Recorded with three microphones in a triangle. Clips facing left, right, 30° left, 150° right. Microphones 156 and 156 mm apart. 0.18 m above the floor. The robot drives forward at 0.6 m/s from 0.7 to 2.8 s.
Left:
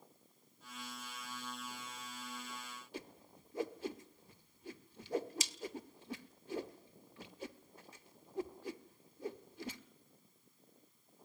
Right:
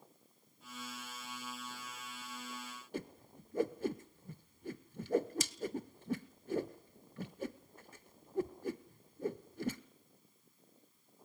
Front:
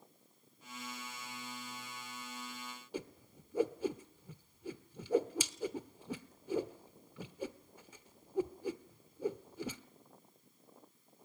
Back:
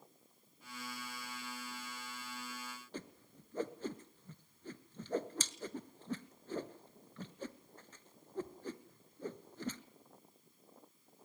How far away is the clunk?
No clunk in this recording.